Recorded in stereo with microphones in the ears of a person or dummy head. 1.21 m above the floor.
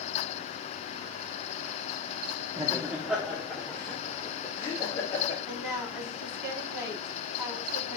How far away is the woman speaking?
About 3.5 m.